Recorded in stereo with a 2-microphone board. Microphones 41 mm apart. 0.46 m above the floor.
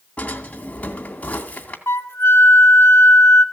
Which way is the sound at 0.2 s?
35° left (ahead or behind).